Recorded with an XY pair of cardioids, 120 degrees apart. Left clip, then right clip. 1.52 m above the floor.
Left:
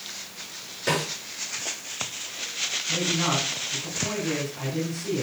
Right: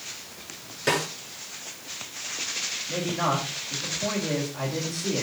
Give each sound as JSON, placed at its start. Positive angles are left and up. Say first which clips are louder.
{"t": 0.9, "sound": "a snare drum", "louder": "right 1 dB", "azimuth_deg": -15, "distance_m": 5.5}
{"t": 2.9, "sound": "a man speaking", "louder": "left 1 dB", "azimuth_deg": -50, "distance_m": 5.0}